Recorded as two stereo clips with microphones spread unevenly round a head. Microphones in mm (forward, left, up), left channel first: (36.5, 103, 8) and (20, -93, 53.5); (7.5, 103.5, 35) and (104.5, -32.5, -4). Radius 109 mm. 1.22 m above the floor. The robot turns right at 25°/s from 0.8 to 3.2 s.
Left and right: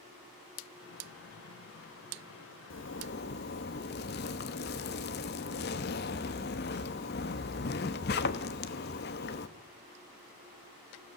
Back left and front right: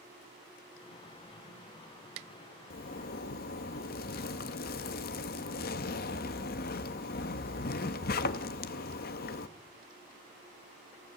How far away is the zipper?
About 0.9 m.